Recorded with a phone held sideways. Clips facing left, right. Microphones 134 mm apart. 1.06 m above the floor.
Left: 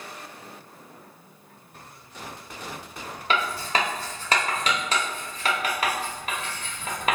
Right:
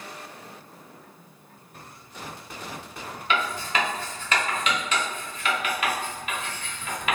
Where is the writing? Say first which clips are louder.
Left 1 dB; 35° left (ahead or behind), 0.9 m.